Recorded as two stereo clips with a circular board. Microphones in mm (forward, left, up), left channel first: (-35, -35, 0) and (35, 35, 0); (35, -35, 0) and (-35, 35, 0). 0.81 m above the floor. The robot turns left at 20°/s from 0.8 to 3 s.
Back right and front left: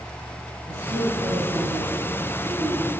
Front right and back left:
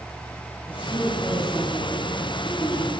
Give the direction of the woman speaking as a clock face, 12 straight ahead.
10 o'clock.